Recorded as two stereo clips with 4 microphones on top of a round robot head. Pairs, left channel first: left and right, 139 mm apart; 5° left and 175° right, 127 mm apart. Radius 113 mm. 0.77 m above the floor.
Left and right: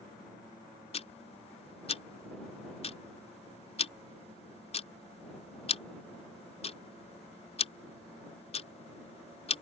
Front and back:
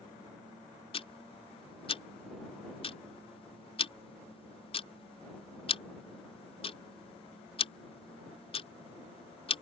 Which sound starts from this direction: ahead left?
Ticking, at 0.9 s.